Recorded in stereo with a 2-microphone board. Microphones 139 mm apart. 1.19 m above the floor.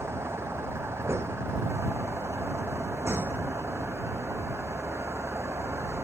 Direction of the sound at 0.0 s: 20° right (ahead or behind).